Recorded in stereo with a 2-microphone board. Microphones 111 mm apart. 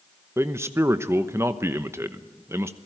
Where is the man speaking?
25° right (ahead or behind), 1.0 m.